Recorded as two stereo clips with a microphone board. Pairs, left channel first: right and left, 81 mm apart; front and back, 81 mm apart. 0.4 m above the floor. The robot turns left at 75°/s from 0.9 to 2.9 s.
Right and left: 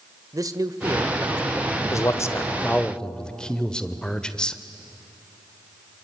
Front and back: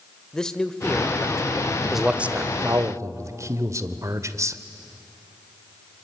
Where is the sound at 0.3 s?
80° left, 1.3 m; by 1.8 s 15° left, 1.3 m.